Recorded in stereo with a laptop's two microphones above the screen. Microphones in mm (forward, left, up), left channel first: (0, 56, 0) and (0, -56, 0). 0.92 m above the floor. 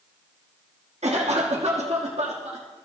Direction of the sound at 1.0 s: 75° right (ahead or behind).